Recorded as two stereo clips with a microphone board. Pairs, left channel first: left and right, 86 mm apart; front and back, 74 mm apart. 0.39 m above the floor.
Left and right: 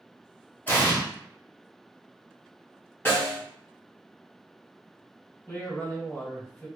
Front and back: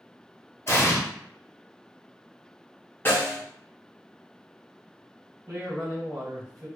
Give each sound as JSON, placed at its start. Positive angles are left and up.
{"t": 0.7, "sound": "an explosion", "azimuth_deg": 30, "distance_m": 0.9}
{"t": 3.0, "sound": "a snare drum", "azimuth_deg": 40, "distance_m": 1.1}
{"t": 5.5, "sound": "a man speaking", "azimuth_deg": 145, "distance_m": 1.8}